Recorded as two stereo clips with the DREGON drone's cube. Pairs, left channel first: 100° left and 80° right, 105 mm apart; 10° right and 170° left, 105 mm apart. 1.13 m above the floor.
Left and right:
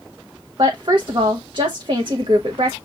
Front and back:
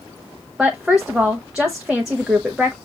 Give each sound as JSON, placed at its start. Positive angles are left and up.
{"t": 0.6, "sound": "a woman speaking", "azimuth_deg": -105, "distance_m": 0.8}